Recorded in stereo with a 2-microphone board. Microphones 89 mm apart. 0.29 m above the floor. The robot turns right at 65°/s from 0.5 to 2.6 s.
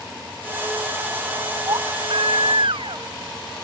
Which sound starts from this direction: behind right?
A baby crying, at 1.7 s.